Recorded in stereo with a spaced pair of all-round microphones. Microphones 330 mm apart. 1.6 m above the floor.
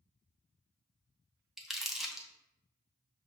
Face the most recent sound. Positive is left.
turn(degrees=0)  # may be behind; listen again after turning